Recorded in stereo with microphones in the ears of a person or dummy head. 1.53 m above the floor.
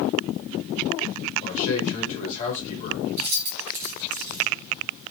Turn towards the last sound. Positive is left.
turn(degrees=-50)  # may be behind; listen again after turning